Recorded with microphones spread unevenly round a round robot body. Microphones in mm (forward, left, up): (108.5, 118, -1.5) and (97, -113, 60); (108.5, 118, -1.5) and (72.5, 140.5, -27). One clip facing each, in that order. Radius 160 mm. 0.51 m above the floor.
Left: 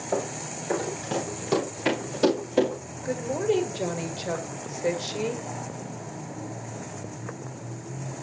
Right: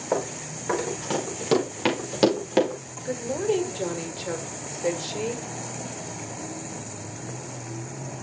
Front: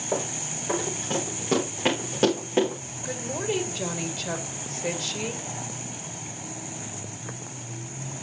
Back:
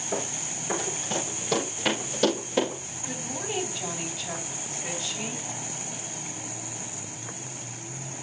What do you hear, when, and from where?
0.1 s running footsteps: 85° right, 6 m; by 2.8 s 100° right, 5 m
3.0 s a woman speaking: 5° left, 2 m